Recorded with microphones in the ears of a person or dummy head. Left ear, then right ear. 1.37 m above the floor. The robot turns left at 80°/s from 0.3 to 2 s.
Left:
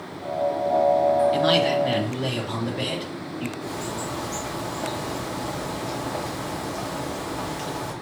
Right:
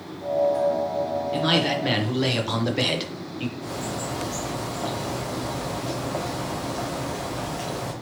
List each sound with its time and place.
1.3 s a man speaking: 20° left, 0.9 m; by 3.5 s 35° right, 0.9 m
3.6 s a bird: centre (ahead or behind), 1.0 m